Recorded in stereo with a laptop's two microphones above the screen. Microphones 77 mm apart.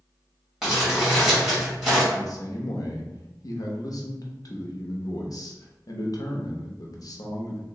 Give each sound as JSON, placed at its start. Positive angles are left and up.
{"t": 0.6, "sound": "crumpling", "side_deg": -5, "distance_m": 1.3}
{"t": 2.1, "sound": "a man speaking", "side_deg": 60, "distance_m": 0.6}